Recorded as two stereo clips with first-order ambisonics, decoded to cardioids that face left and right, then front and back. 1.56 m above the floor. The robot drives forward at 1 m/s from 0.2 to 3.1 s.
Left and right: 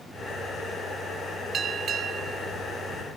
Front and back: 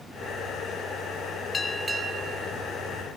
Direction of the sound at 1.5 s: 50° right.